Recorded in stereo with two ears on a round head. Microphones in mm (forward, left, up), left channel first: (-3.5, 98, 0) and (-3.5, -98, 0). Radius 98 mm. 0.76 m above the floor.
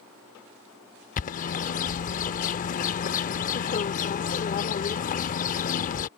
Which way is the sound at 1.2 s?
35° left (ahead or behind).